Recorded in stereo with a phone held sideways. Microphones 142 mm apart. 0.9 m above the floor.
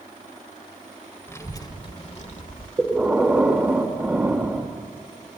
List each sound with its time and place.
1.3 s a child speaking: 20° left (ahead or behind), 2 m; by 2.7 s 70° left (ahead or behind), 1.9 m
2.8 s breathing: 15° right (ahead or behind), 2.0 m